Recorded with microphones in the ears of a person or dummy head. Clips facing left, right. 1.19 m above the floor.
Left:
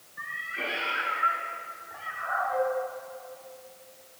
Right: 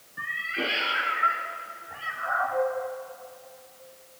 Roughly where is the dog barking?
No dog barking in this recording.